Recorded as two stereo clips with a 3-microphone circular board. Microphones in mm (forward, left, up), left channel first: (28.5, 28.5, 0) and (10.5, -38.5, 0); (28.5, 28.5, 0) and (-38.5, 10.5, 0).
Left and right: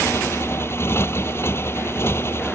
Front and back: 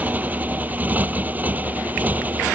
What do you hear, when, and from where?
0.0 s a motorcycle: 130° left